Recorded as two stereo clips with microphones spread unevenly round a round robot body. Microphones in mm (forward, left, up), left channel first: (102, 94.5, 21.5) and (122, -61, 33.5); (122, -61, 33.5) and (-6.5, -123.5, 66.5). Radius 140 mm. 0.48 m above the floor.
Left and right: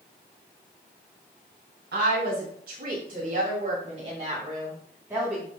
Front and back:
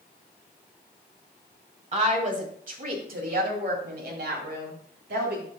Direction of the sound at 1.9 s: 115° right.